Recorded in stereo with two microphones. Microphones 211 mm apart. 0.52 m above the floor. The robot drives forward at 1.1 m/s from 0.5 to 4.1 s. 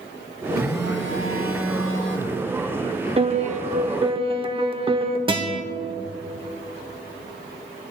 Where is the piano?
25° right (ahead or behind), 0.8 m.